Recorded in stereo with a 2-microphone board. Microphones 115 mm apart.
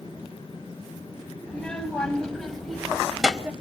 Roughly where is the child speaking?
Centre.